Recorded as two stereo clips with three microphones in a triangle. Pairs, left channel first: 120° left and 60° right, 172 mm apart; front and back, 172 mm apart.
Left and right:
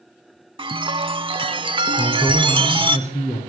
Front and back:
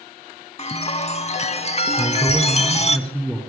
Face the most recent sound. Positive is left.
turn(degrees=80)